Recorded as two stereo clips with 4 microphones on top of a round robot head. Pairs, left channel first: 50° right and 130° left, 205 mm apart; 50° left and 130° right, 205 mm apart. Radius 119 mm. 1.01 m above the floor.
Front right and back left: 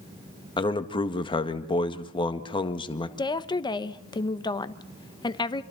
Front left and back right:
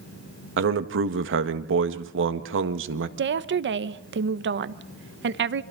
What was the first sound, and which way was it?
A man speaking, 115° right.